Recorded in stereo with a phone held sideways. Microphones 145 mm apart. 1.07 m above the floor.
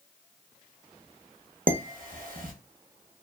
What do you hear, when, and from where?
1.7 s dishes clattering: 70° right (ahead or behind), 0.7 m